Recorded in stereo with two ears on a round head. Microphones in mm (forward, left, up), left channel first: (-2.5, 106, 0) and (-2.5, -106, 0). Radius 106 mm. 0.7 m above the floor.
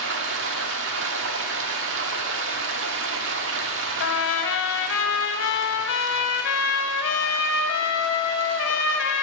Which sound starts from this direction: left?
A trumpet, at 4.0 s.